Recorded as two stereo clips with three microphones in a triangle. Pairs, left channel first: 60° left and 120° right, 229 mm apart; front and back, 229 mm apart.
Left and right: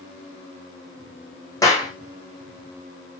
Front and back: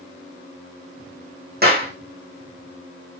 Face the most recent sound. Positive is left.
turn(degrees=135)